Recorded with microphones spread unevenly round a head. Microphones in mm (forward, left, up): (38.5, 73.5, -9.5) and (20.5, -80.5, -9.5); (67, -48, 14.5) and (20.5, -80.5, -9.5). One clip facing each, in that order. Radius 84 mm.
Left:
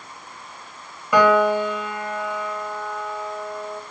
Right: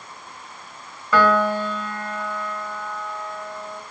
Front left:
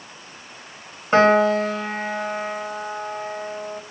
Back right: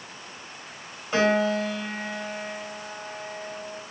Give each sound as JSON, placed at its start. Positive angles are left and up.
{"t": 1.1, "sound": "a piano", "azimuth_deg": 10, "distance_m": 2.5}